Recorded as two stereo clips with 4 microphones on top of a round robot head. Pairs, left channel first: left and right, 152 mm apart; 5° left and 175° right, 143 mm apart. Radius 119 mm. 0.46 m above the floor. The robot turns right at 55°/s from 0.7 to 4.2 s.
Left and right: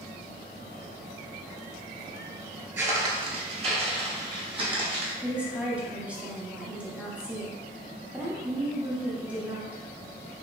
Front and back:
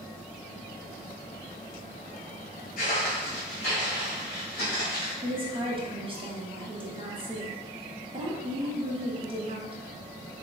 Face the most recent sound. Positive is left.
turn(degrees=-165)